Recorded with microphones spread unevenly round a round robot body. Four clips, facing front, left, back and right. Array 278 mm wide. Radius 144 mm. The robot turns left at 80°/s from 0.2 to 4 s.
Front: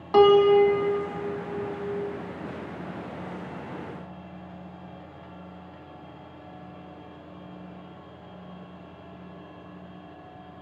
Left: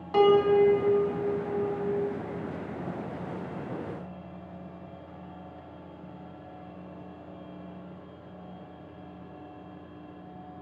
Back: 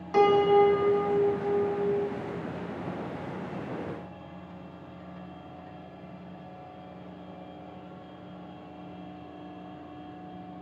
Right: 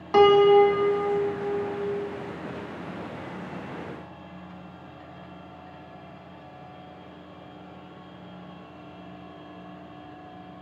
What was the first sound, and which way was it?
A piano, 50° right.